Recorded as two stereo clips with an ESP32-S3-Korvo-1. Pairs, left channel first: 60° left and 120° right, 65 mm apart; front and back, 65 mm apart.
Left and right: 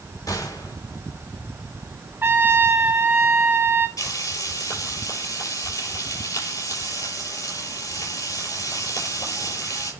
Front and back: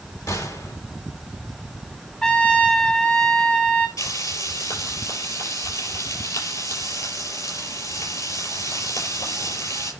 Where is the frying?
30° left, 6 m.